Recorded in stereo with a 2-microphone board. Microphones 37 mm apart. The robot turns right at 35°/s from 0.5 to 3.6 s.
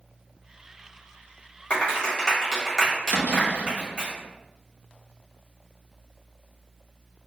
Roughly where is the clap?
Left.